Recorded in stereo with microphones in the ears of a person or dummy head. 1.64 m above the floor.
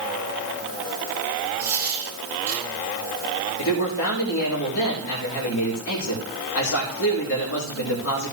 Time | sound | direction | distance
1.6 | a dropped coin | 15° right (ahead or behind) | 8 m
3.6 | a man speaking | 65° left (ahead or behind) | 4 m